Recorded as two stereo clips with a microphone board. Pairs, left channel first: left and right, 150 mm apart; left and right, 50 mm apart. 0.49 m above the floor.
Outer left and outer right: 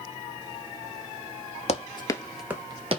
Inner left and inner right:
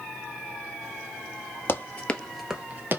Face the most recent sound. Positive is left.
turn(degrees=-45)  # may be behind; listen again after turning